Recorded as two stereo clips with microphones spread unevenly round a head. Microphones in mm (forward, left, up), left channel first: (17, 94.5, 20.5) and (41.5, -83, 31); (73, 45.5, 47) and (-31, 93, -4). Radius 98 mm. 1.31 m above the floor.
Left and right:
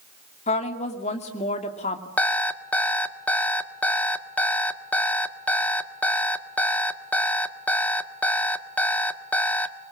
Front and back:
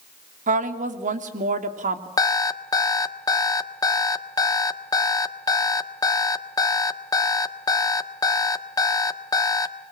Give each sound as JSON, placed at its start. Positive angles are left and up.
{"t": 0.5, "sound": "a woman speaking", "azimuth_deg": 155, "distance_m": 2.5}
{"t": 2.2, "sound": "an alarm clock", "azimuth_deg": 15, "distance_m": 1.4}